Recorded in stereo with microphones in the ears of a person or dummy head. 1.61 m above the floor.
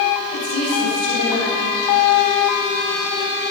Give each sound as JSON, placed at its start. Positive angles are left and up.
{"t": 0.3, "sound": "a woman speaking", "side_deg": 85, "distance_m": 9.0}